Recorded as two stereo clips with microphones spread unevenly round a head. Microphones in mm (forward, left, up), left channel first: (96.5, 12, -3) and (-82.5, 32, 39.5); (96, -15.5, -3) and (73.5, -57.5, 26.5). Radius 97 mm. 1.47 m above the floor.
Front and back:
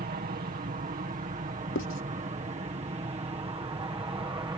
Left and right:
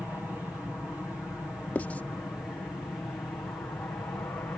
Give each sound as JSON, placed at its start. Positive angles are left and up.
{"t": 0.0, "sound": "an aircraft", "azimuth_deg": 145}
{"t": 1.8, "sound": "writing", "azimuth_deg": -5}